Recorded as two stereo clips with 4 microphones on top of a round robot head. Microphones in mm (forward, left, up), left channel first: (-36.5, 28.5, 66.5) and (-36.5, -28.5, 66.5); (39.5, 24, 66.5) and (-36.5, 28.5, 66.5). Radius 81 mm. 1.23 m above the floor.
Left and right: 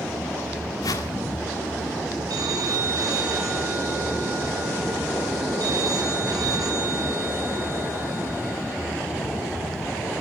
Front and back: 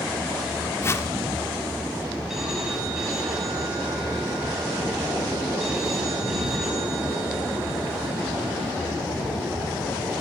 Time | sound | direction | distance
0.8 | a whoosh | 50° left | 1.8 m
2.3 | a phone ringing | 95° right | 8.5 m